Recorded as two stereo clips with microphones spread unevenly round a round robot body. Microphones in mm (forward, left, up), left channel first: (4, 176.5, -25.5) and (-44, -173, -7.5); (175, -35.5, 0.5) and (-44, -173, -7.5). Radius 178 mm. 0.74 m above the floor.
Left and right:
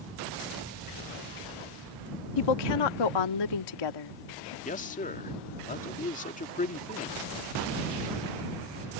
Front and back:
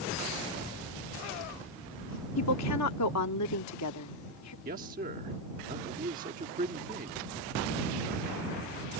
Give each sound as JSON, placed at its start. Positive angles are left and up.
{"t": 2.4, "sound": "a woman speaking", "azimuth_deg": 70}
{"t": 4.7, "sound": "a man speaking", "azimuth_deg": 150}